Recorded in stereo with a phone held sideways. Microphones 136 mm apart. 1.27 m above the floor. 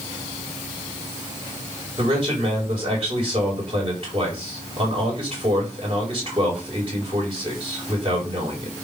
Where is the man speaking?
40° right (ahead or behind), 4.5 m.